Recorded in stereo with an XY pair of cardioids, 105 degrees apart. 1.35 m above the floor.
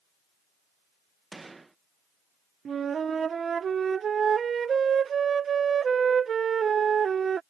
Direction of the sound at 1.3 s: 20° right.